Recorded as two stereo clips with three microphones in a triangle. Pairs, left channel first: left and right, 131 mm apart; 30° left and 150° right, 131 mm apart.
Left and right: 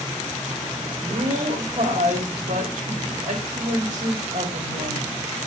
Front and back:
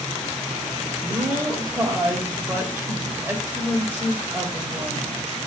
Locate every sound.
1.0 s a woman speaking: 75° right, 4.5 m